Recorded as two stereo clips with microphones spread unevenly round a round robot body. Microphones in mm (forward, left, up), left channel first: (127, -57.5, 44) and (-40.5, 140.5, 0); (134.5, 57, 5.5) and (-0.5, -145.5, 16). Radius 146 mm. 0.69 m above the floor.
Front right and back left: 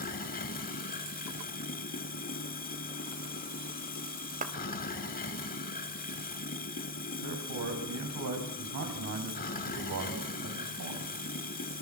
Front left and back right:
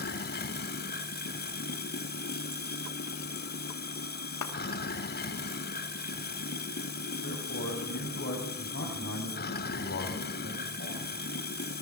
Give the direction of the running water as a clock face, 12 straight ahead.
12 o'clock.